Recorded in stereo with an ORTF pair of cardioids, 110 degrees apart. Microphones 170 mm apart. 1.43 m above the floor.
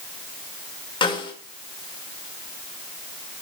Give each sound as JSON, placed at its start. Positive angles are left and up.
{"t": 1.0, "sound": "a snare drum", "azimuth_deg": 30, "distance_m": 5.5}